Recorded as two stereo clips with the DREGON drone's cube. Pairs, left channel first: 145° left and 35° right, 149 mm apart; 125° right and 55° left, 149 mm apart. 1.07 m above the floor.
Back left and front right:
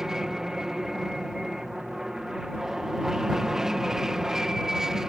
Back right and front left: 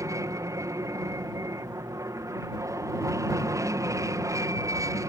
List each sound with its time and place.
0.0 s an aircraft: 50° left